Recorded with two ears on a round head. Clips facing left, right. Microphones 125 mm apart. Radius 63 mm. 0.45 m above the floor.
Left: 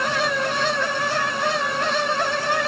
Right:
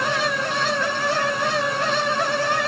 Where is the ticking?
No ticking in this recording.